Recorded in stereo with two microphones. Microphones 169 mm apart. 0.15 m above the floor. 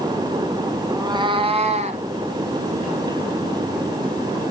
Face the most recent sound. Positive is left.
turn(degrees=-45)  # may be behind; listen again after turning